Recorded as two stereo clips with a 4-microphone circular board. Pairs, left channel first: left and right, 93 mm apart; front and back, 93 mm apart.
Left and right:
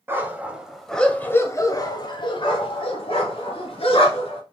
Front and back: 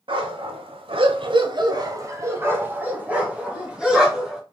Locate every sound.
0.1 s a dog barking: 155° right, 1.0 m; by 4.4 s 95° left, 2 m